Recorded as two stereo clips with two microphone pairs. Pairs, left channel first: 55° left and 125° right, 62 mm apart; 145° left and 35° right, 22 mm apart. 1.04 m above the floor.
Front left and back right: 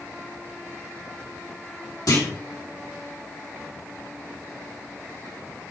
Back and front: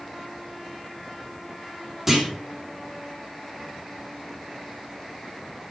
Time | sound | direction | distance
2.1 | a clunk | 45° left | 2.5 m